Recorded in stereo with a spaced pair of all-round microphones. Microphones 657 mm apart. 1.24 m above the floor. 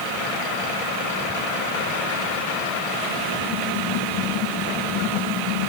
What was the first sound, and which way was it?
Only background noise.